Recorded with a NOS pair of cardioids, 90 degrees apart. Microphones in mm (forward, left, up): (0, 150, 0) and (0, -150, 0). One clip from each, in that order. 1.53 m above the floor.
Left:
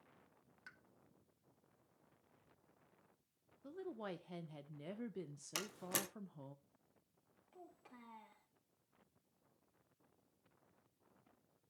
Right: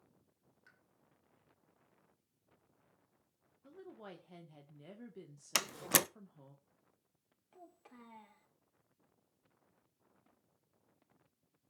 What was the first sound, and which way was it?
A pop, 50° left.